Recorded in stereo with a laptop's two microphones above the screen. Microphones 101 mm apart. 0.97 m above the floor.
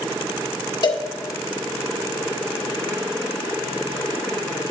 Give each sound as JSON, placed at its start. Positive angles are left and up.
{"t": 0.8, "sound": "a cowbell", "side_deg": 45, "distance_m": 1.5}